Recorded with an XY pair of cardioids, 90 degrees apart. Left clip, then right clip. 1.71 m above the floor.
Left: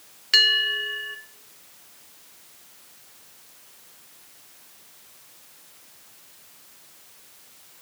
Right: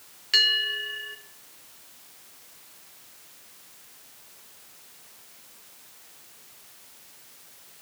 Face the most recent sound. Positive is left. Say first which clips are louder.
# left 3 dB
turn(degrees=35)